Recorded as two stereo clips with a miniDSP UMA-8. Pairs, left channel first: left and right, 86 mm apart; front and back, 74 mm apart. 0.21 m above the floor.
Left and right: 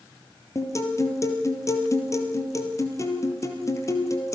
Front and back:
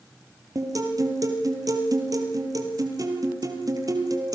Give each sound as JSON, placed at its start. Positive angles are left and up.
{"t": 0.6, "sound": "a guitar", "azimuth_deg": 145, "distance_m": 3.5}